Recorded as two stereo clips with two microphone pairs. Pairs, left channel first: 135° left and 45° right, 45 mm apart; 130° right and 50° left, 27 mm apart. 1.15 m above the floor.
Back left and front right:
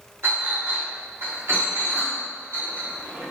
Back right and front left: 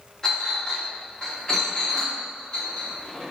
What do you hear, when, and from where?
0.2 s a clink: 65° right, 1.5 m